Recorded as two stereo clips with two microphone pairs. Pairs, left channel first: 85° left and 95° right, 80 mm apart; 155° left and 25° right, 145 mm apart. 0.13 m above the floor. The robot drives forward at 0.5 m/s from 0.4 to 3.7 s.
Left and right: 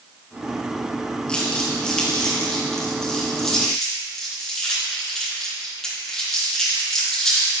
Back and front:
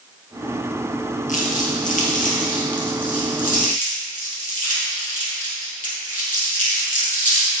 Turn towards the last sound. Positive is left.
turn(degrees=165)